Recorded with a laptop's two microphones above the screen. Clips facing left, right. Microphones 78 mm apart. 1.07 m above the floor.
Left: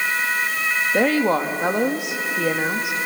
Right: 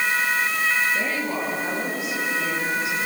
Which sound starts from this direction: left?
A woman speaking, at 0.9 s.